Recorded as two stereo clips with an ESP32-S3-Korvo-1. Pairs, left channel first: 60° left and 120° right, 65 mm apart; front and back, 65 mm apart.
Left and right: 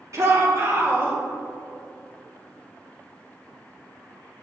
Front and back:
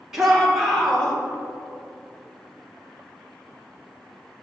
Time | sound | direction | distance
0.1 | a shout | 100° right | 1.6 m